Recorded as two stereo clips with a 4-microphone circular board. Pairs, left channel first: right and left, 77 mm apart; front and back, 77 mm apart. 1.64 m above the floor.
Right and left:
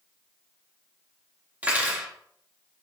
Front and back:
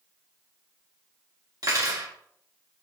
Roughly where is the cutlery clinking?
Behind left.